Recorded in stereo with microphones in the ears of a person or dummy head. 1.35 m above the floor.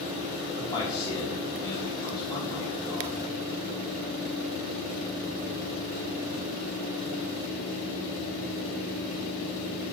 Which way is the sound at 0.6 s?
20° left (ahead or behind).